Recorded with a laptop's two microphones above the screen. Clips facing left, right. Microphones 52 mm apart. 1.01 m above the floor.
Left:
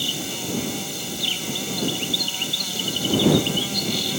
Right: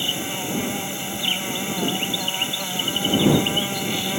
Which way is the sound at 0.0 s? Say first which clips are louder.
Right 2 dB; 25° right (ahead or behind).